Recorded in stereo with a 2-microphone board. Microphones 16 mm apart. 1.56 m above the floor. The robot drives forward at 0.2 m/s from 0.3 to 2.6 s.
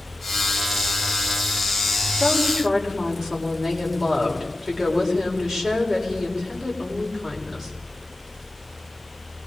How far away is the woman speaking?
About 7 m.